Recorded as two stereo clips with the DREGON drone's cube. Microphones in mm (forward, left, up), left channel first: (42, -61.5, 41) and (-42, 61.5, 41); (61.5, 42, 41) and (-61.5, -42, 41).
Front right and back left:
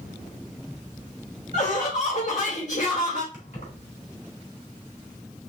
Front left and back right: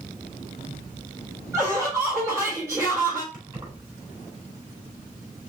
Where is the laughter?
80° right, 2 m.